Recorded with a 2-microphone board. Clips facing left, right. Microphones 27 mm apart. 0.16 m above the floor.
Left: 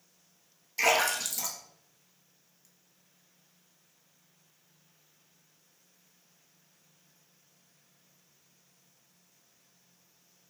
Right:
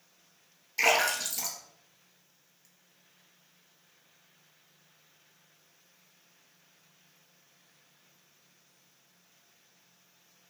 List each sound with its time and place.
0.8 s a splash: 10° right (ahead or behind), 0.8 m